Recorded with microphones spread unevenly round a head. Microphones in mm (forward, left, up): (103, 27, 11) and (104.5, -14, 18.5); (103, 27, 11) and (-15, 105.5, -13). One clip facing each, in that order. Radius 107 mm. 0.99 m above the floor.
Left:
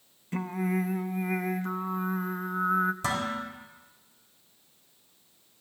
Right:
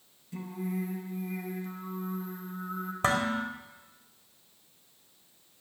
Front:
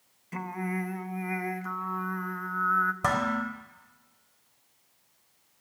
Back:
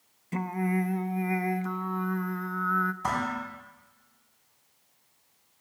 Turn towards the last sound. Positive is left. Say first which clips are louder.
# right 3 dB, front 2 dB
turn(degrees=-40)